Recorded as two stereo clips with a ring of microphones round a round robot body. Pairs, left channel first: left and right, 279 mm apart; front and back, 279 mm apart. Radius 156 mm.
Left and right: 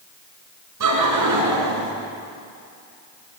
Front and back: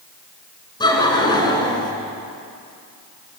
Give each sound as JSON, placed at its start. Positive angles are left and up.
{"t": 0.8, "sound": "laughter", "azimuth_deg": -75, "distance_m": 5.5}